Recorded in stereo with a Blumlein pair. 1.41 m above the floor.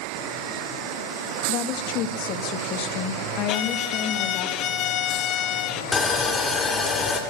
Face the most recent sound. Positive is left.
turn(degrees=20)